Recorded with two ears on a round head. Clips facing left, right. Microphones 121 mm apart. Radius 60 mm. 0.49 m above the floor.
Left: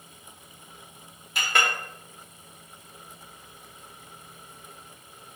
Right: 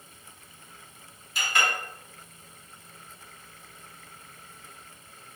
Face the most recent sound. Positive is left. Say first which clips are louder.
# left 2 dB
turn(degrees=50)  # may be behind; listen again after turning